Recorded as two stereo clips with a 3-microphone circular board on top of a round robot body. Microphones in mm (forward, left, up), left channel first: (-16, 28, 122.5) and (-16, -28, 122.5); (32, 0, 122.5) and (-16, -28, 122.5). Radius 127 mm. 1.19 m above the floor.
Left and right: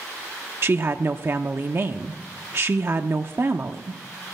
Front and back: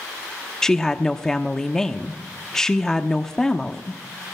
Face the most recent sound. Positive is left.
turn(degrees=-50)